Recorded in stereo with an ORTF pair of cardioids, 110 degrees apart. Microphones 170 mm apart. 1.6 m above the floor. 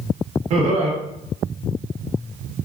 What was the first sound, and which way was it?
Laughter, 40° right.